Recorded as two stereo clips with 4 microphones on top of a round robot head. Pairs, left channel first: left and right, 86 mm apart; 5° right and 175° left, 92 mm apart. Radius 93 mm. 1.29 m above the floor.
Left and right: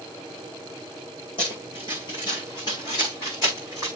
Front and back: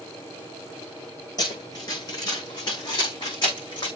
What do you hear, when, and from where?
1.4 s running footsteps: 45° left, 5.5 m; by 3.9 s 30° left, 6 m